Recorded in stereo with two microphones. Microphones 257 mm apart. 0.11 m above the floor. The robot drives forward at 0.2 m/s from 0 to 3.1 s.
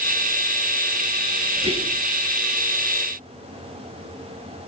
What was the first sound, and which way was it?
Whispering, 25° right (ahead or behind).